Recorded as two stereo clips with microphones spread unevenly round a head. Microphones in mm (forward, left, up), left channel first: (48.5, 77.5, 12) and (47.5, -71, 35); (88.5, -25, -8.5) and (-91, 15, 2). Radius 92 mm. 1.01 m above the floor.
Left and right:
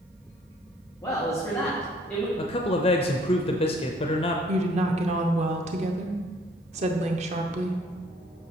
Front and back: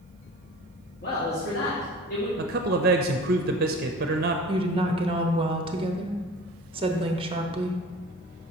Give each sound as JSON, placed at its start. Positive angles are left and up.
{"t": 1.0, "sound": "a man speaking", "azimuth_deg": 25, "distance_m": 1.6}
{"t": 2.4, "sound": "a man speaking", "azimuth_deg": 130, "distance_m": 0.5}
{"t": 4.5, "sound": "a woman speaking", "azimuth_deg": -135, "distance_m": 0.8}